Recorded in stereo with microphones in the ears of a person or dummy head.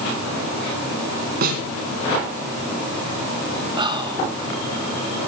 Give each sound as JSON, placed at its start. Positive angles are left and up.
{"t": 1.4, "sound": "a snare drum", "side_deg": -50, "distance_m": 3.0}
{"t": 3.8, "sound": "whispering", "side_deg": -25, "distance_m": 1.8}